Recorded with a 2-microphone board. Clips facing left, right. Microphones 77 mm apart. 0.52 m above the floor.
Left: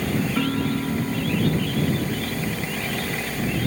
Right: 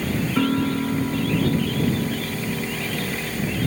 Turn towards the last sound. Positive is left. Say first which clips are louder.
# right 2 dB
turn(degrees=-15)  # may be behind; listen again after turning